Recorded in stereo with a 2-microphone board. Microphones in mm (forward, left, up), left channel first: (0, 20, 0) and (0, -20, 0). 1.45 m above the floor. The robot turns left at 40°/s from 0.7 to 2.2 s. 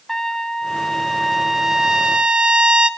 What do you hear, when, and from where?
0.1 s a trumpet: 15° left, 0.7 m; by 2.9 s 45° right, 0.7 m